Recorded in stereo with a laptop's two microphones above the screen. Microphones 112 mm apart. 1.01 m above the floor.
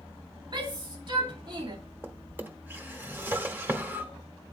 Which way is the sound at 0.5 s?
45° right (ahead or behind).